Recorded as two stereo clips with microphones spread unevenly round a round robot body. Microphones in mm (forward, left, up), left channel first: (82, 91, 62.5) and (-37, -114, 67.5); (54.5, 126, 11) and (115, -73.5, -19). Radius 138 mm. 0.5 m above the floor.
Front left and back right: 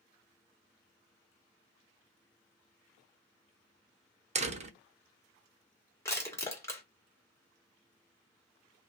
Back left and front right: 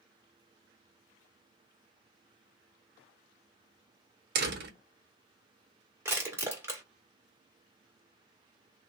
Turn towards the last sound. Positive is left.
turn(degrees=-10)